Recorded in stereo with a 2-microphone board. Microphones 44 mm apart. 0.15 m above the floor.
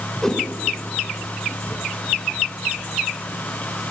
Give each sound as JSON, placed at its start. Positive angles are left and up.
{"t": 0.2, "sound": "a whoosh", "side_deg": 10, "distance_m": 1.5}